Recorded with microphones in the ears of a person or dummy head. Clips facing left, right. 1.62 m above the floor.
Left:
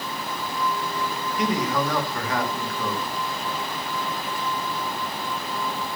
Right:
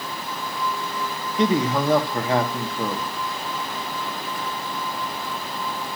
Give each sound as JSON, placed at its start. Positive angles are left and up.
{"t": 1.4, "sound": "a man speaking", "side_deg": -25, "distance_m": 2.5}